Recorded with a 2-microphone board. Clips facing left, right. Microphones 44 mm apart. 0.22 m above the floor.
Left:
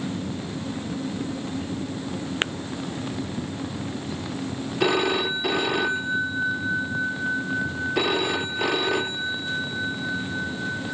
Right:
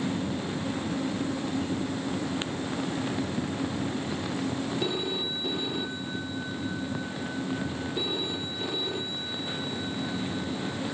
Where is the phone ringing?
85° left.